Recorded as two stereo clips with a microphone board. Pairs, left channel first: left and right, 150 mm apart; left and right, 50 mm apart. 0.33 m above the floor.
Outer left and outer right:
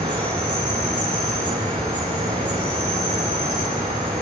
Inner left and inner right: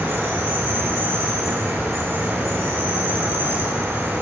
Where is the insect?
65° right (ahead or behind), 6.5 m.